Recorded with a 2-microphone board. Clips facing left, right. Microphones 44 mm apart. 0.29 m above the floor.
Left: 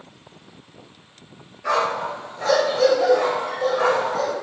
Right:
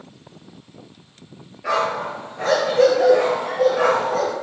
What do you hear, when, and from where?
1.6 s a dog barking: 10° right (ahead or behind), 2 m; by 4.3 s 80° right, 3 m